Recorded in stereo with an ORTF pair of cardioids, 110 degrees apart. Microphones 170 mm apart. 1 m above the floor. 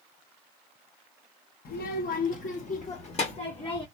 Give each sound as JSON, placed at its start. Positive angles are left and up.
{"t": 1.6, "sound": "a child speaking", "azimuth_deg": 70, "distance_m": 1.3}